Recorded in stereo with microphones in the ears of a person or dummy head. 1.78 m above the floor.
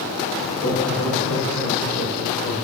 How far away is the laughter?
About 2.5 m.